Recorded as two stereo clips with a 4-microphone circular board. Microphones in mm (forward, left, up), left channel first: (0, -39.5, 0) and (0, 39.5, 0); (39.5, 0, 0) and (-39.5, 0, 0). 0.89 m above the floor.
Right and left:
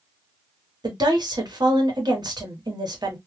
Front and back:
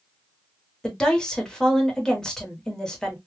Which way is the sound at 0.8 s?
80° left.